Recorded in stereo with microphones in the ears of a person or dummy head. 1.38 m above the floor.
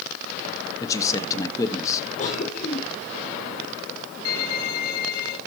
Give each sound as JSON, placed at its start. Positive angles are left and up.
{"t": 0.8, "sound": "a man speaking", "side_deg": 25, "distance_m": 1.5}
{"t": 2.2, "sound": "a cough", "side_deg": 35, "distance_m": 5.0}
{"t": 4.2, "sound": "a violin", "side_deg": 65, "distance_m": 1.9}